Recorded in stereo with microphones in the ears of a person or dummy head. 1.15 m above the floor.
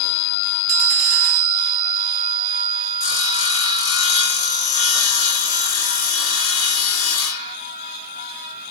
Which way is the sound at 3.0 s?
80° left.